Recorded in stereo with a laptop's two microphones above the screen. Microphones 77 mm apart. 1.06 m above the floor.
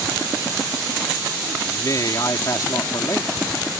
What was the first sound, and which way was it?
A man speaking, 50° left (ahead or behind).